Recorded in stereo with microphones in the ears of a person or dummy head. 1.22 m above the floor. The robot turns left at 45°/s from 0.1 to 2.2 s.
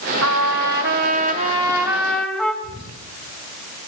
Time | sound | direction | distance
0.2 | a trumpet | 90° right | 2 m
2.6 | whispering | 30° right (ahead or behind) | 7 m